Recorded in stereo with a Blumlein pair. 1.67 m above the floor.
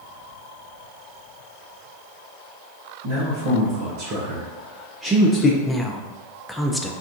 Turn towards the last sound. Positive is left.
turn(degrees=5)